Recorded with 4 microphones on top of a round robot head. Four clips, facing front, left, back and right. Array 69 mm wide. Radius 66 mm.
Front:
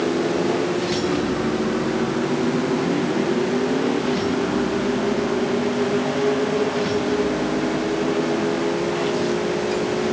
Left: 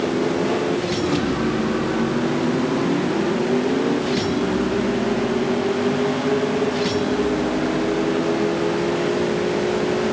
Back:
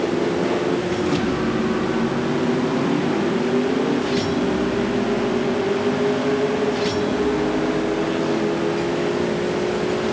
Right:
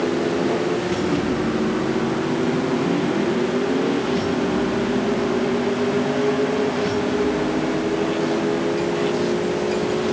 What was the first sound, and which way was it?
Only background noise.